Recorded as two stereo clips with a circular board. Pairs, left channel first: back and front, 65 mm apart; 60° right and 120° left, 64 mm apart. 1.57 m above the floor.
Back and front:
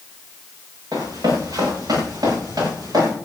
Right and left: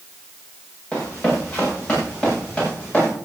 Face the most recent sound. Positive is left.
turn(degrees=10)